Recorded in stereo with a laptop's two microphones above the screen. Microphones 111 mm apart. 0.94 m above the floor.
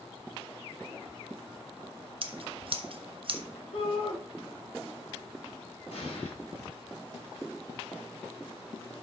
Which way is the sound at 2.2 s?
55° right (ahead or behind).